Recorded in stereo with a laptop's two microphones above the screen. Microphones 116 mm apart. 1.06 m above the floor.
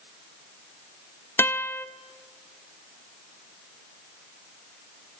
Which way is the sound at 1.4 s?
20° left (ahead or behind).